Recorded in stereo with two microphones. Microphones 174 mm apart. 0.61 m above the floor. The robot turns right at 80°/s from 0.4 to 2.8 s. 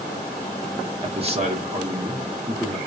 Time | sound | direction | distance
1.0 | a man speaking | 130° right | 1.1 m